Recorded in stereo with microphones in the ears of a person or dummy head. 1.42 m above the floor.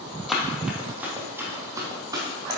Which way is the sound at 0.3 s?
5° right (ahead or behind).